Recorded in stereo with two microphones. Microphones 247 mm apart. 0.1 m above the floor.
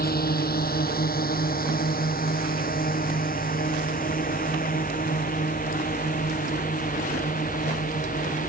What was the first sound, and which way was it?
A drone, 40° left (ahead or behind).